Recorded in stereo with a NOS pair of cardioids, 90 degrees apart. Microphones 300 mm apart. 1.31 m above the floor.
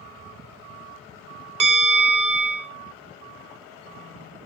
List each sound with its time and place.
1.6 s a bell: 25° right, 0.7 m